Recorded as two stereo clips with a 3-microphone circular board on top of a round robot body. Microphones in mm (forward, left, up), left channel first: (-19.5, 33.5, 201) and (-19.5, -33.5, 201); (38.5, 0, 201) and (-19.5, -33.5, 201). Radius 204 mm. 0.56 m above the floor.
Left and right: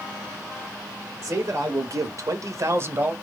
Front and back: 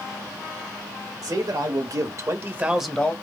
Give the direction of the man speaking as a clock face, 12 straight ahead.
4 o'clock.